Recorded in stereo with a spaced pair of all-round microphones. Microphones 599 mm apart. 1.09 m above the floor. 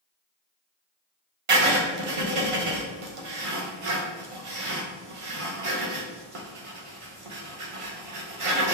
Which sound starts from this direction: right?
Writing, at 1.5 s.